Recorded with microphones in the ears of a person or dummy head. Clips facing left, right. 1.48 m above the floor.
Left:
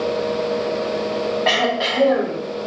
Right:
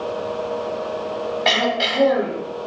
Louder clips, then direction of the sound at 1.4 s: Left 1 dB; 35° right (ahead or behind).